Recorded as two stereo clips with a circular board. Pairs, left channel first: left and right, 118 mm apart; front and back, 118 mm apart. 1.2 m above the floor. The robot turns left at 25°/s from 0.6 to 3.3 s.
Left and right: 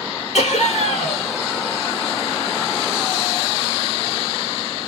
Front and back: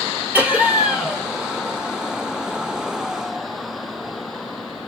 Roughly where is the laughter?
Left.